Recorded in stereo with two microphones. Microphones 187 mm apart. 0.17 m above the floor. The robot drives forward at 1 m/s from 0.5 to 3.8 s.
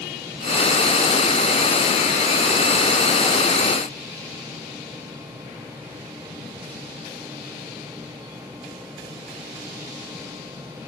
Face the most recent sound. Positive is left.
No sound to turn to.